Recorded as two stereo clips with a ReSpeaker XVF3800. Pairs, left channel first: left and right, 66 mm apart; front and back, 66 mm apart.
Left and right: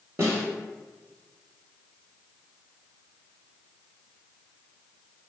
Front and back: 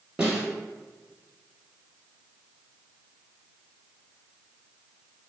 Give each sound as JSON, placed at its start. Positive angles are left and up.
{"t": 0.2, "sound": "a snare drum", "azimuth_deg": -105, "distance_m": 1.3}